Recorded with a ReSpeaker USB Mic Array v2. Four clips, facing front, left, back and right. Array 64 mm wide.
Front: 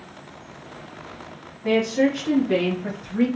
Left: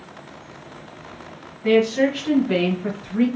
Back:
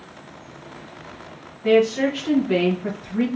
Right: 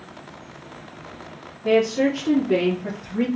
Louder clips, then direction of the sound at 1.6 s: Left 1 dB, back 3 dB; 115° left.